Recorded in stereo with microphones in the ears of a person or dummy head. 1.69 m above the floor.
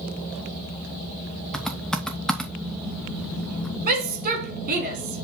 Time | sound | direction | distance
1.5 | typing on a keyboard | 5° left (ahead or behind) | 1.0 m
3.9 | a shout | 45° right (ahead or behind) | 2 m